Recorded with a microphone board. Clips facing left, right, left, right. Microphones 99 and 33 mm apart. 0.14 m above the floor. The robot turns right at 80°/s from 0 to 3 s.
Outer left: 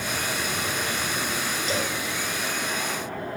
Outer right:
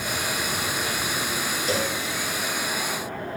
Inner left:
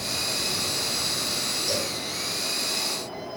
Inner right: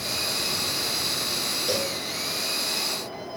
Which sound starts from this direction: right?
A cowbell, at 1.7 s.